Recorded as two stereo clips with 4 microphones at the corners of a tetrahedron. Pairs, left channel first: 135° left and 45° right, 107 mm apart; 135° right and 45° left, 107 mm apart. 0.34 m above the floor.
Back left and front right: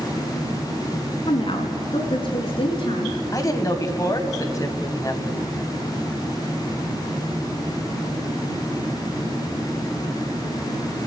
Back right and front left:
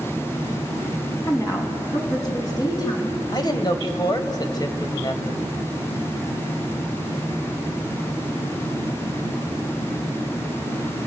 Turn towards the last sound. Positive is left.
turn(degrees=-175)